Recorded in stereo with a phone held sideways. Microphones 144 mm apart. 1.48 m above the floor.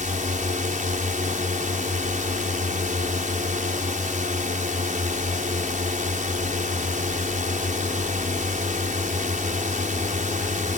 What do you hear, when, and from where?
0.0 s a drone: 65° right (ahead or behind)